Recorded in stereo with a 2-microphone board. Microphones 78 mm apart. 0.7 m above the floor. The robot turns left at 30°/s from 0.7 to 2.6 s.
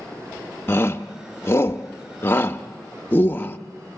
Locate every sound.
0.7 s a shout: 30° left (ahead or behind), 0.8 m; by 3.6 s 25° left (ahead or behind), 0.8 m